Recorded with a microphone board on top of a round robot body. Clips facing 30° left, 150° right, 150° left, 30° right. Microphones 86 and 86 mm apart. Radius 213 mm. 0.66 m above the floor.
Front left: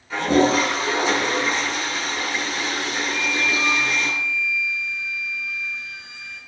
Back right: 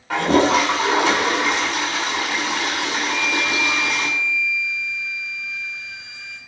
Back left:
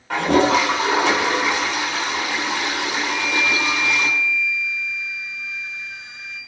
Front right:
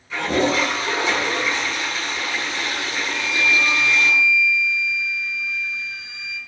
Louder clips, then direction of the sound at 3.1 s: Back right 2 dB, front right 3 dB; 155° right.